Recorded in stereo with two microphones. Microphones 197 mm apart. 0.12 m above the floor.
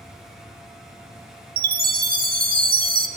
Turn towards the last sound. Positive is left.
turn(degrees=-50)  # may be behind; listen again after turning